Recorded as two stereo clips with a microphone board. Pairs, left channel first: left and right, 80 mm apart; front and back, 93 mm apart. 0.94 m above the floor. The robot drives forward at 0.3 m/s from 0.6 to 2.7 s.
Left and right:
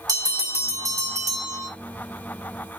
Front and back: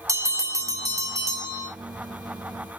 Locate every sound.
0.1 s a bell: 125° right, 1.8 m; by 1.7 s 135° right, 2 m